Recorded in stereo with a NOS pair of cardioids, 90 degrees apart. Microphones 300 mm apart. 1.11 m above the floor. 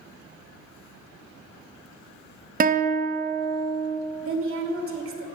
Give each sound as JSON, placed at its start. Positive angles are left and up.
{"t": 2.6, "sound": "a guitar", "azimuth_deg": -30, "distance_m": 1.0}
{"t": 4.2, "sound": "a woman speaking", "azimuth_deg": -45, "distance_m": 3.0}